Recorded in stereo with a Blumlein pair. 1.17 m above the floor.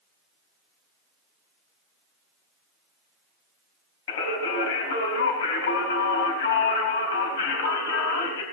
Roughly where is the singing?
Ahead left.